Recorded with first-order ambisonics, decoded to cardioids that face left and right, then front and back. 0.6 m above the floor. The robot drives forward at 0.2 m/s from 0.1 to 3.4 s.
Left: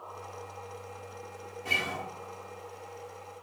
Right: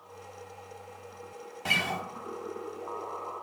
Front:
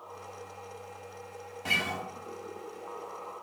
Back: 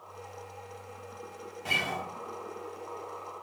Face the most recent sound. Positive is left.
turn(degrees=-110)